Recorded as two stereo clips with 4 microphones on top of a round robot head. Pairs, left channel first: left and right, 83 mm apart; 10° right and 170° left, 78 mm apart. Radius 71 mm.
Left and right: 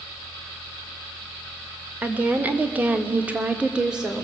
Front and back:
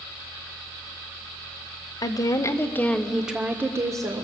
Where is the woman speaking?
20° right, 1.9 m; by 4.2 s 170° right, 1.9 m.